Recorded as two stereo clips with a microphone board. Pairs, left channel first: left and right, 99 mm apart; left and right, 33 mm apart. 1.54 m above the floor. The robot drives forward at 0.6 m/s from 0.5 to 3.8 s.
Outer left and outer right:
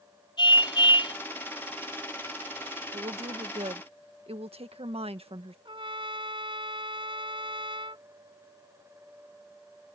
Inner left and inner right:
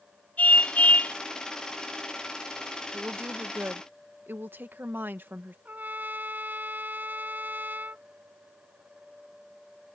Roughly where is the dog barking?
I don't hear a dog barking.